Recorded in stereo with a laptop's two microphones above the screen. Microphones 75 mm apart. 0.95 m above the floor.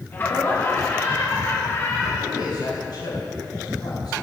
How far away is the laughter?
About 1.3 m.